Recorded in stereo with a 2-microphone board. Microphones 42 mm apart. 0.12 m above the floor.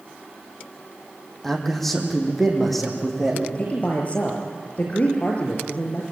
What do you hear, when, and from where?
1.4 s a man speaking: 5° left (ahead or behind), 4 m; by 3.5 s centre (ahead or behind), 5.5 m
3.5 s a man speaking: 35° left (ahead or behind), 7 m